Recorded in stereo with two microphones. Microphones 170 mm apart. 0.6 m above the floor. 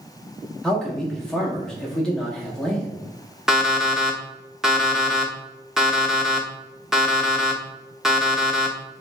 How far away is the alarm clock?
About 0.7 m.